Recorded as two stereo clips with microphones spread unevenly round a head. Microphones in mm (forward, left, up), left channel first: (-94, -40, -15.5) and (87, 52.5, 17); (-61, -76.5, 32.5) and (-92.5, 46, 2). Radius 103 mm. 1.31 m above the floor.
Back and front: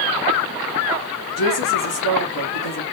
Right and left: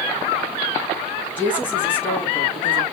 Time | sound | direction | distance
1.4 | a woman speaking | 155° right | 2.5 m